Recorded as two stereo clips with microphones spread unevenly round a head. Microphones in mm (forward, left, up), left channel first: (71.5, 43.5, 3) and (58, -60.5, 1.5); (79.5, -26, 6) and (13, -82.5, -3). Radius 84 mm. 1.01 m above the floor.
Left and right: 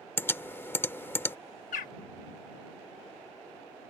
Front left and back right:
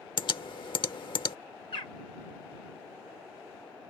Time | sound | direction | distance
0.2 | typing on a keyboard | 15° left | ?
1.7 | a bird | 105° left | ?